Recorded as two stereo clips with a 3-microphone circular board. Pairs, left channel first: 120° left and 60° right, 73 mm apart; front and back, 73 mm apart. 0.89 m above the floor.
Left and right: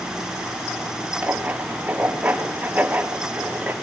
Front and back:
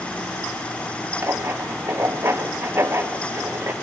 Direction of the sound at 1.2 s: 125° right.